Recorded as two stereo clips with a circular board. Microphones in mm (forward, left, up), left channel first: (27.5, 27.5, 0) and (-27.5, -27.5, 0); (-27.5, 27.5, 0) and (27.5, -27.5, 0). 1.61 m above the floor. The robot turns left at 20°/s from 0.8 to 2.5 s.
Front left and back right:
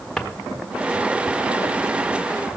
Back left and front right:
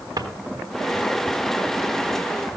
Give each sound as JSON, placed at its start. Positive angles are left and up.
{"t": 0.2, "sound": "a drawer", "azimuth_deg": -40, "distance_m": 1.4}